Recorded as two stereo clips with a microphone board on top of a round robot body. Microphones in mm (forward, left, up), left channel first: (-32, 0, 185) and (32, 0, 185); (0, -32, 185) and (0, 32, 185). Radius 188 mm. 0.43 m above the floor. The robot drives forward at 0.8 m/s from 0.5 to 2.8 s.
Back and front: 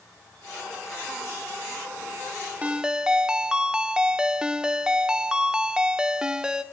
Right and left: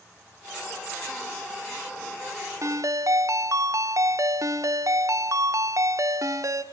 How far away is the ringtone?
About 1.0 m.